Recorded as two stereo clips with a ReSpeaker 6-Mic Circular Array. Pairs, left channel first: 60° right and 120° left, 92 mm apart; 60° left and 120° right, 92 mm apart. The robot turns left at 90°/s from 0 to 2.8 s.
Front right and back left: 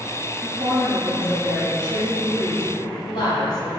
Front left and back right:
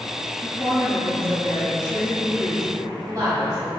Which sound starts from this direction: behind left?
A woman speaking, at 0.4 s.